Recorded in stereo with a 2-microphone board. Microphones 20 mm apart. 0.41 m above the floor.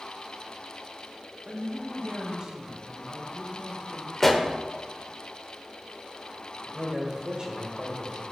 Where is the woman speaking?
40° right (ahead or behind), 1.6 m.